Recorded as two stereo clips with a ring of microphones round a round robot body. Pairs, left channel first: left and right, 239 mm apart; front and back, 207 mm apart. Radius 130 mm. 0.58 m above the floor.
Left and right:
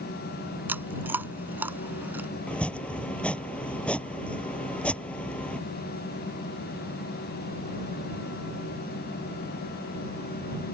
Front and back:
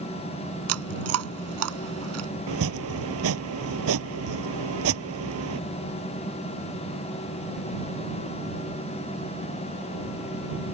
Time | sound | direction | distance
0.7 | chewing | 170° right | ?
2.5 | chopping | 175° left | ?